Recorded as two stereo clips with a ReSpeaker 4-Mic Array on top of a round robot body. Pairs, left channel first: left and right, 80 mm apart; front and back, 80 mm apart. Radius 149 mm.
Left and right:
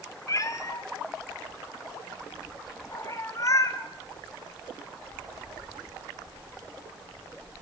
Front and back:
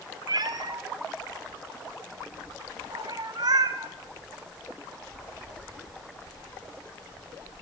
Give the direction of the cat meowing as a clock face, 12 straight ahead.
7 o'clock.